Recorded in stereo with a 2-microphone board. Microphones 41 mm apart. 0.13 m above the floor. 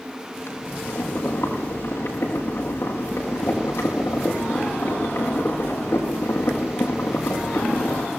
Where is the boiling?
65° left (ahead or behind), 6.5 m.